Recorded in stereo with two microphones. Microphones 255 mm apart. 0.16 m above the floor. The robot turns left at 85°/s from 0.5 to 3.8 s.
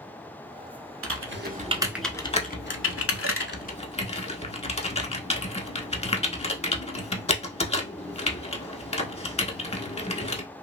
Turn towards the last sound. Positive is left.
turn(degrees=25)  # may be behind; listen again after turning